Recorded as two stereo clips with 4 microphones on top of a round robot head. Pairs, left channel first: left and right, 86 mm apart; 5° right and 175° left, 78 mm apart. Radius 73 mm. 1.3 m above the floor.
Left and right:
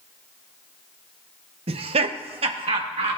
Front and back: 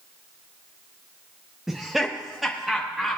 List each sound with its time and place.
1.7 s laughter: 95° right, 0.6 m